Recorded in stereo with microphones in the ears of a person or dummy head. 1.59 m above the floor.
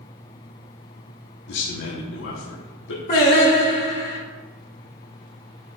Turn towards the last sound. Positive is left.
turn(degrees=50)  # may be behind; listen again after turning